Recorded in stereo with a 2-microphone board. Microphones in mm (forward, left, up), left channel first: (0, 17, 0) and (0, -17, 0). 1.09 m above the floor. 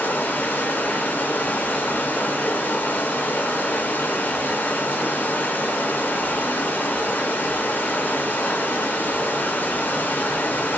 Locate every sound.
0.0 s running water: 60° left (ahead or behind), 0.7 m